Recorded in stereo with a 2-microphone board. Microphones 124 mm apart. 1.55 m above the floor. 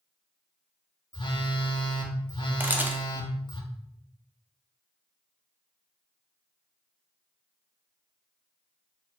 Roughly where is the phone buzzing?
Left.